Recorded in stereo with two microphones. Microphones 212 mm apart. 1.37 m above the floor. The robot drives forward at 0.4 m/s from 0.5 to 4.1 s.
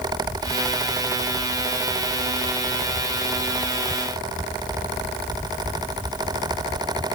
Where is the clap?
No clap in this recording.